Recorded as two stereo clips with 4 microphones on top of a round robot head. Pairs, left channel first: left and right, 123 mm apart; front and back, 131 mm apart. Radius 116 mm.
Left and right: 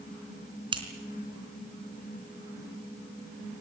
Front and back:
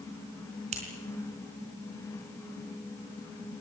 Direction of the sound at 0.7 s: 140° right.